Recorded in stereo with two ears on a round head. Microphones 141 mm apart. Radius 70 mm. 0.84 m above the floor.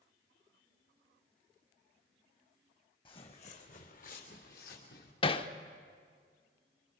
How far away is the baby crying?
I don't hear a baby crying.